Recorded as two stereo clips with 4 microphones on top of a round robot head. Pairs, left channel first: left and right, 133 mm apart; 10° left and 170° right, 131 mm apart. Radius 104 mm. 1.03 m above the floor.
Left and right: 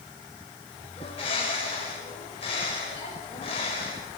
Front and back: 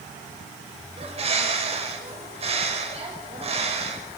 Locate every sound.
1.0 s a bird: 150° left, 6.5 m